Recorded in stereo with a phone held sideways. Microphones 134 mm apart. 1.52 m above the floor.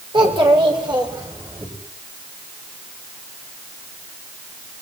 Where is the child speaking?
40° right (ahead or behind), 4.5 m; by 1.7 s 35° right (ahead or behind), 5.5 m.